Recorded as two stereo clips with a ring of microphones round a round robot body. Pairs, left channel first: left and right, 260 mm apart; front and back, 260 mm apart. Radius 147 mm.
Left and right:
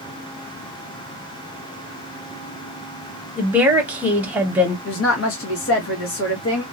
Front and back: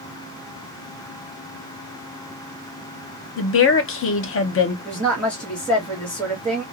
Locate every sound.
3.4 s a woman speaking: 5° right, 0.9 m
4.8 s a woman speaking: 85° left, 1.2 m